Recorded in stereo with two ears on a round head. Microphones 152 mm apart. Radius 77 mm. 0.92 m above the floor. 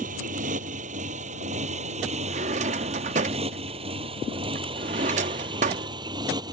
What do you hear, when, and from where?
0.0 s a motorcycle: 45° right (ahead or behind); by 6.5 s 25° right (ahead or behind)
2.3 s a drawer: 40° right (ahead or behind)